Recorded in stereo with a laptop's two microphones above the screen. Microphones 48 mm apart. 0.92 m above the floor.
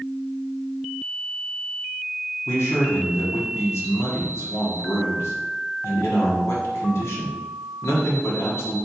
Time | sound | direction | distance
2.5 | a man speaking | 70° left (ahead or behind) | 1.6 m